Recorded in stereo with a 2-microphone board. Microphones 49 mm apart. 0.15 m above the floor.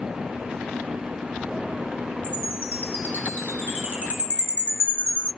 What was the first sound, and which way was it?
A chime, 30° right (ahead or behind).